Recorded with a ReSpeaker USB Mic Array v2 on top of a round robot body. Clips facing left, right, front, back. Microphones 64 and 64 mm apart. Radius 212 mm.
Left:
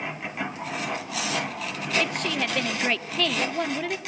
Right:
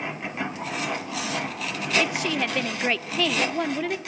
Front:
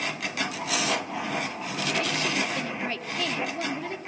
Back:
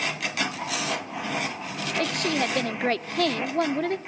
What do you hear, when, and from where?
2.0 s a woman speaking: 175° right, 1.4 m